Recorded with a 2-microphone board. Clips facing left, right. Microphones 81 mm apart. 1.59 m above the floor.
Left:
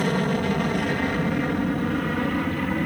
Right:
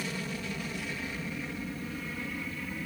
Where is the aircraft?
60° left (ahead or behind); by 2.9 s 65° left (ahead or behind).